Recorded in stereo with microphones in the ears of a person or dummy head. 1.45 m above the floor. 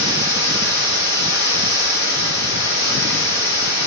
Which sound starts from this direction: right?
Running water, at 0.0 s.